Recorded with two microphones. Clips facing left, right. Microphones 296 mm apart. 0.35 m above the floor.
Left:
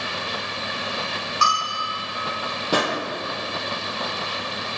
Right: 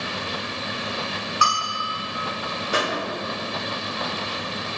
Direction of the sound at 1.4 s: 50° left (ahead or behind).